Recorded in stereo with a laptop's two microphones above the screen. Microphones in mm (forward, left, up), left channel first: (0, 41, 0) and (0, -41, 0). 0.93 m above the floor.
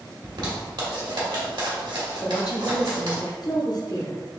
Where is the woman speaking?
55° left (ahead or behind), 0.6 m.